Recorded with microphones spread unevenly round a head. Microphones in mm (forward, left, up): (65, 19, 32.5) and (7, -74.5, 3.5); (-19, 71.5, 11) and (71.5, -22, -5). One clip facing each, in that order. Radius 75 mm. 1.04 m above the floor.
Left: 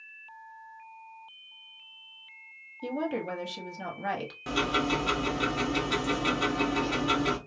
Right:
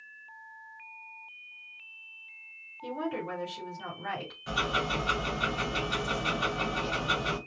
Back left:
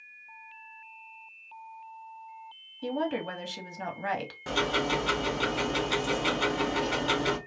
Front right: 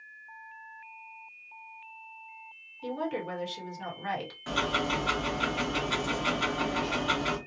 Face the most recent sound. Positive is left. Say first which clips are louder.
# left 3 dB, back left 2 dB
turn(degrees=85)